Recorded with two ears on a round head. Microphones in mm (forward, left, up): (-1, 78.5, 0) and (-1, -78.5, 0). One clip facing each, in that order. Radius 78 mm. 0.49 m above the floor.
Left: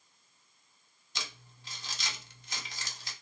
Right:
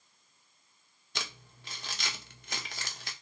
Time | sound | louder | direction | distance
1.1 | crumpling | right 3 dB | 50° right (ahead or behind) | 0.6 m